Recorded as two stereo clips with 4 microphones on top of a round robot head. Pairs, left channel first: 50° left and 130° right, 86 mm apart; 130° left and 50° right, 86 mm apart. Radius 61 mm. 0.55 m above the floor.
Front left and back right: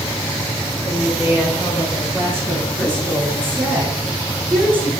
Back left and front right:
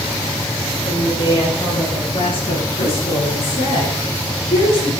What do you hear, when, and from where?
0.8 s a woman speaking: 160° left, 10 m; by 4.9 s 155° left, 8 m